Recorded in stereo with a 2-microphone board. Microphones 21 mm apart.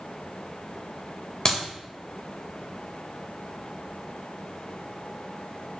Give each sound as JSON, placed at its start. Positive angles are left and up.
{"t": 1.4, "sound": "a clap", "side_deg": 30, "distance_m": 1.9}